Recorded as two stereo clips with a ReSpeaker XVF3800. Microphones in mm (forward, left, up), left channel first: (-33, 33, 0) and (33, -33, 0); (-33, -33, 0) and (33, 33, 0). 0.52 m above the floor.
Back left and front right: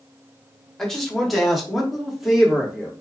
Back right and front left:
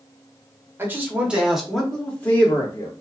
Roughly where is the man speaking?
Ahead left.